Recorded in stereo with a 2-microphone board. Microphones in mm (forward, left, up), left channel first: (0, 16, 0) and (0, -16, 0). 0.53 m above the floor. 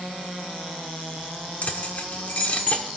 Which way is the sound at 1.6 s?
50° left (ahead or behind).